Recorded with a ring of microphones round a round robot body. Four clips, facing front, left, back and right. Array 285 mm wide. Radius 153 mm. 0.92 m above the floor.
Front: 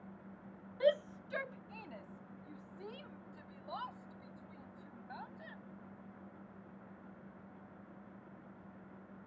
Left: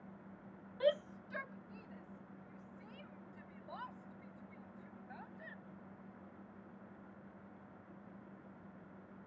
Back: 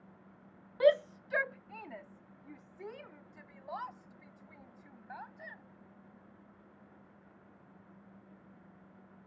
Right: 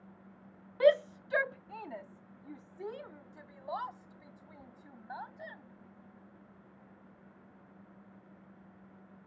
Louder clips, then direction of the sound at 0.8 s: Right 9 dB, back 6 dB; 130° right.